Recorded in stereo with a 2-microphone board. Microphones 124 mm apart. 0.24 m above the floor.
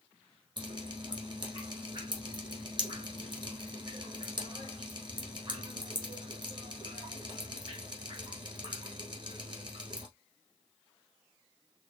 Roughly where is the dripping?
Right.